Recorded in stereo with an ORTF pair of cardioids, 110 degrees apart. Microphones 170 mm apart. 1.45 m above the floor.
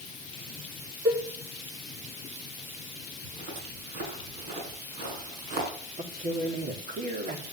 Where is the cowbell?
20° right, 3 m.